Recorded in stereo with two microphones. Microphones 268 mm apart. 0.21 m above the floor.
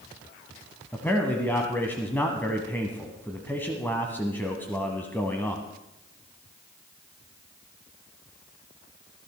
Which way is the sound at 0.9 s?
5° left (ahead or behind).